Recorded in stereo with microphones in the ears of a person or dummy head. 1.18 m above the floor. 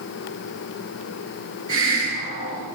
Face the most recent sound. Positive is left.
turn(degrees=-75)  # may be behind; listen again after turning